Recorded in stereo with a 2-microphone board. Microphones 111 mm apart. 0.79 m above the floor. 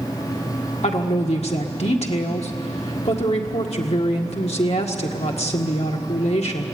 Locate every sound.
0.8 s a woman speaking: 75° left (ahead or behind), 1.7 m